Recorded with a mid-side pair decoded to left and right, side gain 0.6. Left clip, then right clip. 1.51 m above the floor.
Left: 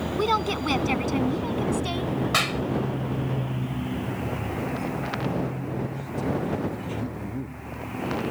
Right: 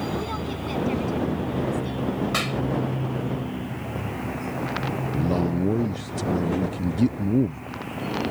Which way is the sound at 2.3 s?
20° left.